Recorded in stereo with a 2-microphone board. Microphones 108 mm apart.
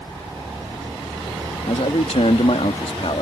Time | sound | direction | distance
1.7 | a man speaking | 80° left | ?